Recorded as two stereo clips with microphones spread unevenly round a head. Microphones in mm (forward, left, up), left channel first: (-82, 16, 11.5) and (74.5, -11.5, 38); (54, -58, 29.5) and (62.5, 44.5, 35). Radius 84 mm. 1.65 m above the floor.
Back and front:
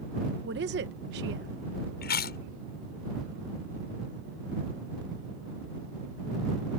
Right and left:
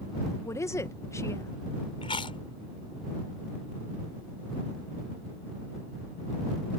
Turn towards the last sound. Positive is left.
turn(degrees=-155)